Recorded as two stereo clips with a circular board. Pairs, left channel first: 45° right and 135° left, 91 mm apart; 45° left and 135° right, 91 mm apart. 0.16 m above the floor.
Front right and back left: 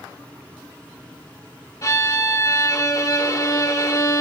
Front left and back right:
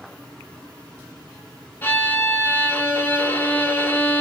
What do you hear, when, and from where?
1.8 s a violin: 15° right, 0.5 m